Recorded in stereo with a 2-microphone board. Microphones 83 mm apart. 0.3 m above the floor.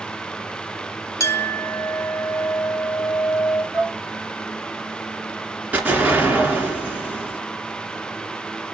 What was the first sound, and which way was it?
A clink, 35° left (ahead or behind).